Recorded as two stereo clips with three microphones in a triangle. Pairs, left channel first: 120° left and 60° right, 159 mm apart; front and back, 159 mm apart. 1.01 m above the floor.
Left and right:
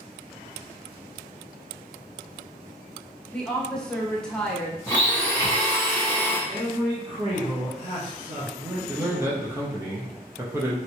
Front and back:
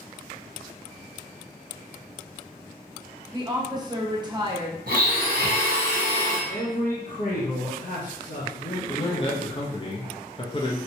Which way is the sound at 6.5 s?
5° right.